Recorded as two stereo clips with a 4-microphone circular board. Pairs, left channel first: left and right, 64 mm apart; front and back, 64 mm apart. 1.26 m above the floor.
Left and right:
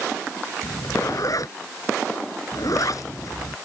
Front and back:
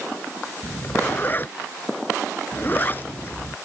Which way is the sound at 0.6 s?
60° left.